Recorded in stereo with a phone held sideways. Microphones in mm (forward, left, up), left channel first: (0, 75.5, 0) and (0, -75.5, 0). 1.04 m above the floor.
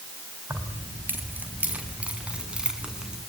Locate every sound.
0.5 s keys jangling: 15° right (ahead or behind), 5 m; by 3.2 s 5° right (ahead or behind), 7.5 m